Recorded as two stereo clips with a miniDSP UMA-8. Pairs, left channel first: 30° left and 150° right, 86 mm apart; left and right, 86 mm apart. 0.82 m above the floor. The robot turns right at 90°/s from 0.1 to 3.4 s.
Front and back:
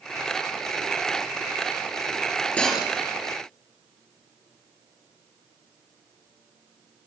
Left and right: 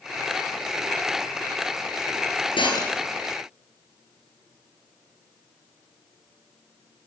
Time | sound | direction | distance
2.6 | breaking glass | 105° left | 5.5 m